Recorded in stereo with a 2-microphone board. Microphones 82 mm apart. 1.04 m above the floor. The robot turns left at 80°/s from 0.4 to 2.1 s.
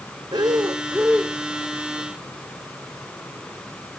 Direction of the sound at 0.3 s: 110° right.